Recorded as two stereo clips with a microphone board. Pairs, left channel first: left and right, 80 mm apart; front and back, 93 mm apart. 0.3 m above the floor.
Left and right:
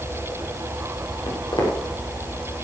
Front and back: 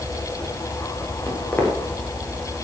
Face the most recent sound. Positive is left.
turn(degrees=70)